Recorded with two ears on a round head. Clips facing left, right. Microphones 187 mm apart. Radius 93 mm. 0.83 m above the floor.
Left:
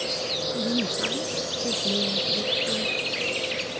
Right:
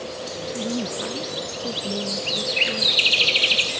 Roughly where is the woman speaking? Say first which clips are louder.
Even; centre.